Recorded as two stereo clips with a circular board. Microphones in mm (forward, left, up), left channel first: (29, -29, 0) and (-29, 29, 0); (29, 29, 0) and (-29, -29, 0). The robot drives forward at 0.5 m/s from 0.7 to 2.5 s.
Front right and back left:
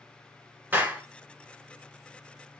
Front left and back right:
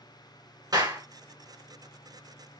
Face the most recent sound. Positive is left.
turn(degrees=-165)